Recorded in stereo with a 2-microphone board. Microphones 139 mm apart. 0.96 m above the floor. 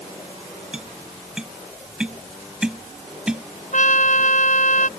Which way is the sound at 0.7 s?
5° right (ahead or behind).